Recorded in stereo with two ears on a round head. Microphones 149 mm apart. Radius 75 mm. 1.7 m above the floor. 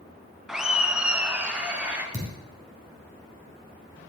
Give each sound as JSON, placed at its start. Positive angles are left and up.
{"t": 0.5, "sound": "laughter", "side_deg": -5, "distance_m": 1.7}
{"t": 2.1, "sound": "a thud", "side_deg": -20, "distance_m": 5.5}